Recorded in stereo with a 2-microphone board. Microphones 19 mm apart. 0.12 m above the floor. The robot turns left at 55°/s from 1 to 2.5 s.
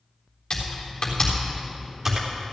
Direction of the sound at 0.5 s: 35° left (ahead or behind).